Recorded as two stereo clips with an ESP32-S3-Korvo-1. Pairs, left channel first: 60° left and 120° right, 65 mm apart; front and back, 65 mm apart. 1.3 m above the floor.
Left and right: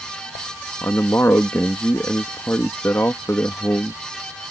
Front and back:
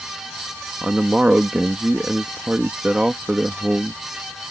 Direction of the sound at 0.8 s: 105° left.